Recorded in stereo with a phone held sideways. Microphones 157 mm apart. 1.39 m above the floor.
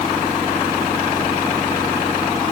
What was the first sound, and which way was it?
Only background noise.